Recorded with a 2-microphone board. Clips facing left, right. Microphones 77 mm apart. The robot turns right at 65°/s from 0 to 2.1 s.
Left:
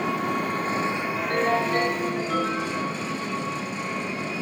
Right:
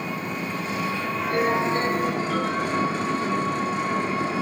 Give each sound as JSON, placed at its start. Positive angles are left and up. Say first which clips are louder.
{"t": 0.0, "sound": "an engine running", "louder": "left 4 dB", "azimuth_deg": 95, "distance_m": 1.9}
{"t": 1.2, "sound": "a ringtone", "louder": "right 1 dB", "azimuth_deg": 80, "distance_m": 9.0}